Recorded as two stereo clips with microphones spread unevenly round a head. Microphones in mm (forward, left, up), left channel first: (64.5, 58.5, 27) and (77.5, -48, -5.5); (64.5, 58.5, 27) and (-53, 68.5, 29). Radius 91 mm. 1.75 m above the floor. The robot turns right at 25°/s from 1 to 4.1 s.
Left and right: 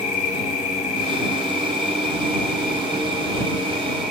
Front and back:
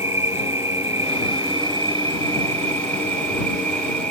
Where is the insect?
110° left; by 4.1 s 175° right.